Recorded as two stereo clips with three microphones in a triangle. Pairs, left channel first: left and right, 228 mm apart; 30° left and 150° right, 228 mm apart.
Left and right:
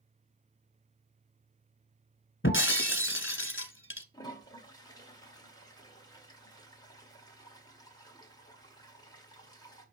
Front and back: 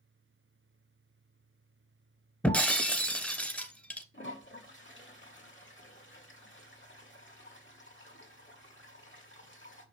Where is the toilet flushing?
20° left, 1.7 m.